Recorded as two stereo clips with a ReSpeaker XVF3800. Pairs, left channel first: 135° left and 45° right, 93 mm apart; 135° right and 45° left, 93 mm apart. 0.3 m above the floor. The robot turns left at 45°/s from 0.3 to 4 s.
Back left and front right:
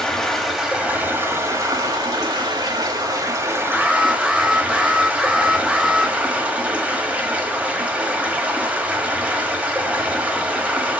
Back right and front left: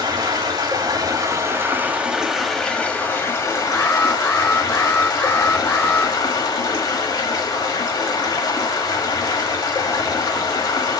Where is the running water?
50° left, 1.4 m; by 11.0 s 115° right, 1.4 m.